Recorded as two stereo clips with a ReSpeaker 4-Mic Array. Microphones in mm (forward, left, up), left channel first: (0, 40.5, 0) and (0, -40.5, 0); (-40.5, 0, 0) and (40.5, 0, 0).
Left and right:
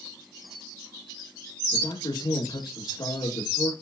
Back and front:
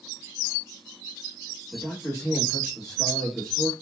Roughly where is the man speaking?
Left.